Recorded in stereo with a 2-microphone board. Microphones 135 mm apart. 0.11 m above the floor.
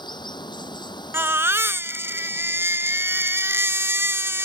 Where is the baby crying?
15° right (ahead or behind).